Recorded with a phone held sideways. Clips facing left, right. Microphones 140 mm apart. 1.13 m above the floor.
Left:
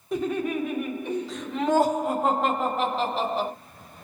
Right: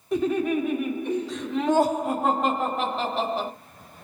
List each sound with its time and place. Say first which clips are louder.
0.1 s laughter: right 3 dB; centre (ahead or behind), 1.2 m